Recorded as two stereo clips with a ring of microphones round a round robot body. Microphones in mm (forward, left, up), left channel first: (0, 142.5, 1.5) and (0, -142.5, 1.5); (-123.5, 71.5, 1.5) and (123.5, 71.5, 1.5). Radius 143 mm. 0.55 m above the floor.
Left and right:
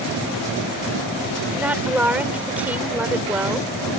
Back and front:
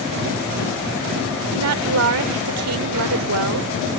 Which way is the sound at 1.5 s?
5° right.